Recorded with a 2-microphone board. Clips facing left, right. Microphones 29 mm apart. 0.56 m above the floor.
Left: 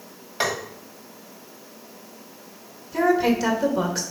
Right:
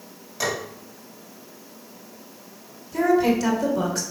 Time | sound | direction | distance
0.4 | tapping | 40° left (ahead or behind) | 2.5 m
2.9 | a woman speaking | 10° left (ahead or behind) | 1.7 m